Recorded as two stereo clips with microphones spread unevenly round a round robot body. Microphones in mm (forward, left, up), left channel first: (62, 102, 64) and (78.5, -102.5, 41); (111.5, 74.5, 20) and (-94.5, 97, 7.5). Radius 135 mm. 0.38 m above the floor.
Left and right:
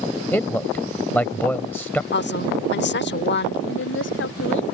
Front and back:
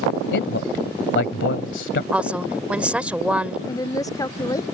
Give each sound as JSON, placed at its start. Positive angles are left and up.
{"t": 0.3, "sound": "a man speaking", "azimuth_deg": 10}
{"t": 2.1, "sound": "a woman speaking", "azimuth_deg": 95}
{"t": 3.7, "sound": "a woman speaking", "azimuth_deg": 65}